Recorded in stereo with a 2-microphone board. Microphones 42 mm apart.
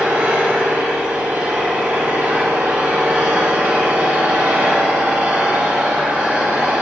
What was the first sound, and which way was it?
An engine running, 55° right (ahead or behind).